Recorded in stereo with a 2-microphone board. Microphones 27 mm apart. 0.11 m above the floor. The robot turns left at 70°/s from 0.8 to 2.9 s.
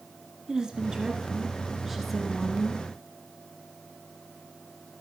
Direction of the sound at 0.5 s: 30° right (ahead or behind).